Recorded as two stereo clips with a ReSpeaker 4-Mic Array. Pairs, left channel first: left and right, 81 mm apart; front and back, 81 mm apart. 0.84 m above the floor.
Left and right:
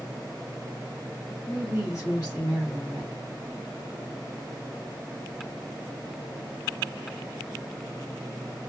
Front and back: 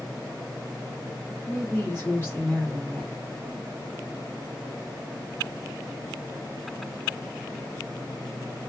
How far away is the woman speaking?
About 1.7 m.